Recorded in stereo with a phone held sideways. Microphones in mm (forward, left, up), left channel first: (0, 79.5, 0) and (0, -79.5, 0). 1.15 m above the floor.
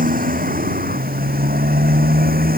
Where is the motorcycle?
75° right (ahead or behind); by 2.6 s 80° right.